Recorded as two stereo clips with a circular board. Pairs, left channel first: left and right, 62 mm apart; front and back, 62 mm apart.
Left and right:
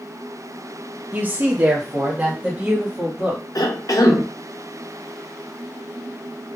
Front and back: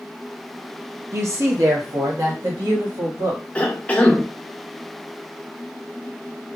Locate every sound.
1.1 s a woman speaking: 145° right, 0.8 m; by 3.4 s 165° right, 2 m
3.5 s a cough: 70° left, 0.7 m